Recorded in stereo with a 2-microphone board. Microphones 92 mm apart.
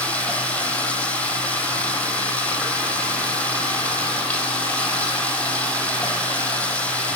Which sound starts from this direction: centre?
Running water, at 0.0 s.